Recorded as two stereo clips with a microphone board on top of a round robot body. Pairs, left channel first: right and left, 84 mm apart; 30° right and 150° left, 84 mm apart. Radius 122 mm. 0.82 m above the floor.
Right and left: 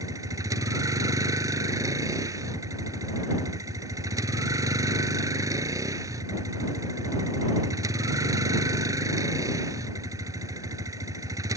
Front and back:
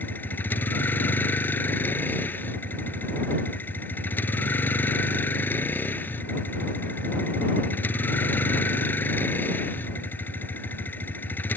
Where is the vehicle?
40° left.